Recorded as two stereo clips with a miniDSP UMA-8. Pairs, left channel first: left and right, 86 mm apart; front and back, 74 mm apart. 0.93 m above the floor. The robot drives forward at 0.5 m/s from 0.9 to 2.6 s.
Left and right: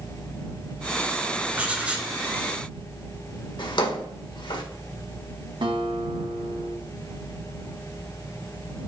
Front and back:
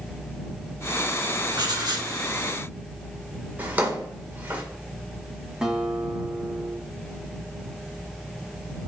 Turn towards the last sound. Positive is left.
turn(degrees=-100)